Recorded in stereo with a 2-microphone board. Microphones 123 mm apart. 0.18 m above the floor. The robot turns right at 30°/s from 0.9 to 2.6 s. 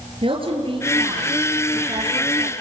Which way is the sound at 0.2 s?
50° right.